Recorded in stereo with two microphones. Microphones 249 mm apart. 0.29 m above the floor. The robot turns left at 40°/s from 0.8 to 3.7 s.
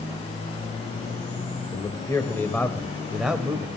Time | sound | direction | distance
1.7 | a man speaking | 15° left (ahead or behind) | 1.0 m